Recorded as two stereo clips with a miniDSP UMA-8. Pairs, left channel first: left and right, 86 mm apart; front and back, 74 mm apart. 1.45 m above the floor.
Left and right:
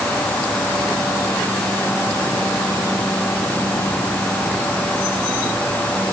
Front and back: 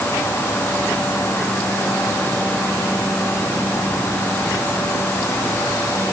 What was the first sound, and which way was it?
Only background noise.